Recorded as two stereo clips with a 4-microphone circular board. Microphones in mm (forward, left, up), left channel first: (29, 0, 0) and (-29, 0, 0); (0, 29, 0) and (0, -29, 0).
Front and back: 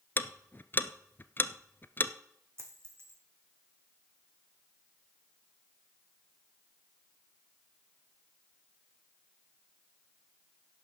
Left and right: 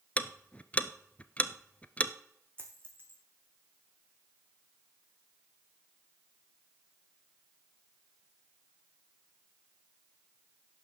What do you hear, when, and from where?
0.2 s ticking: 35° left, 0.7 m
2.6 s a dropped coin: 140° right, 2 m